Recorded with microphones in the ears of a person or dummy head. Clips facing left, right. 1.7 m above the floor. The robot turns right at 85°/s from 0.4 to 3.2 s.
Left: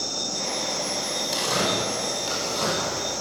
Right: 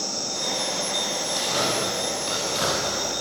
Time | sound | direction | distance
1.3 | tearing paper | 85° left | 7.5 m